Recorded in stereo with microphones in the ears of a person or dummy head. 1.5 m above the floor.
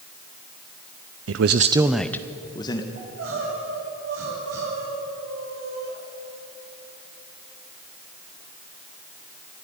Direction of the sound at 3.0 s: 85° right.